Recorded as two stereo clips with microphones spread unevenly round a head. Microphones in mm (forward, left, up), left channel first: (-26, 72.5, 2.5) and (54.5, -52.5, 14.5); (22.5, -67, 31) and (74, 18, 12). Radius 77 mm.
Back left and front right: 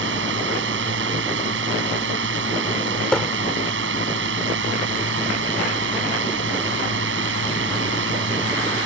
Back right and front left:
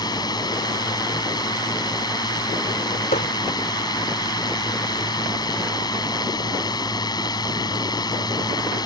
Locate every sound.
0.0 s a drone: 75° right
3.1 s hammering: 150° right